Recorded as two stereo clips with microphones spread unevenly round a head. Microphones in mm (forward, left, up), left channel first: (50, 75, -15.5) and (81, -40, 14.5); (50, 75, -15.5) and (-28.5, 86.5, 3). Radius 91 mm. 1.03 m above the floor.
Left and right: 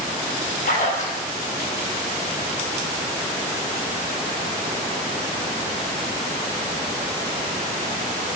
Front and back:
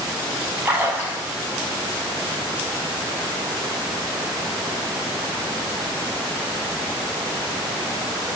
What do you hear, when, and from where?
0.7 s a splash: 105° left, 6.5 m